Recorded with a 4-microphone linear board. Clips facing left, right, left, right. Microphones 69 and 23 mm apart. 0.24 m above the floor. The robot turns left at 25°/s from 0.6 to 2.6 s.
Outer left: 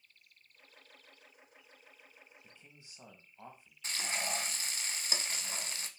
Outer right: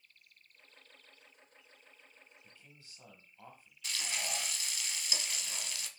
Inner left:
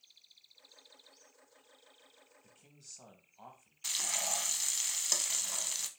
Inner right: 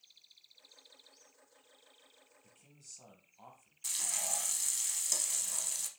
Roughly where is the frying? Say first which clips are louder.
Outer left 2 dB, inner left 2 dB; left.